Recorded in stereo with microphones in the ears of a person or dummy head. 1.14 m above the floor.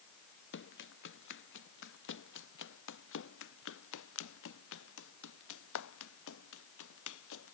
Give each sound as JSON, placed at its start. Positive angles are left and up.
{"t": 0.5, "sound": "running footsteps", "side_deg": 60}